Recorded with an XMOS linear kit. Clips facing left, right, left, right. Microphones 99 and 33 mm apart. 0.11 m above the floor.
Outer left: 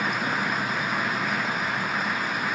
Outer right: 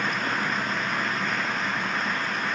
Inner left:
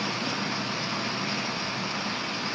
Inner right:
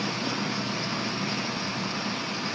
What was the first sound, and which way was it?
Only background noise.